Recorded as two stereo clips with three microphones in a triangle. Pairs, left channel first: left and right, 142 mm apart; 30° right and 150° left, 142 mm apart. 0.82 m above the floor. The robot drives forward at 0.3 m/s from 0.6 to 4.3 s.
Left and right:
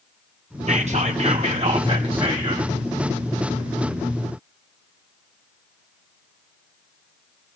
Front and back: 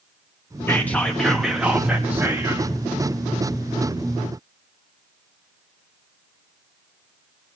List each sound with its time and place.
0.7 s whispering: 100° right, 0.7 m; by 2.7 s 140° right, 1.0 m